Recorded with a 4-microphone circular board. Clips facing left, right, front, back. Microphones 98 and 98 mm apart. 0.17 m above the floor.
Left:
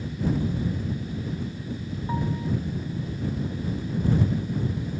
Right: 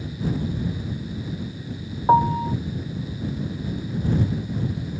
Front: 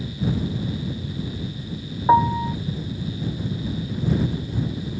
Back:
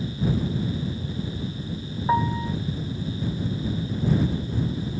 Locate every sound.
2.1 s a piano: 60° right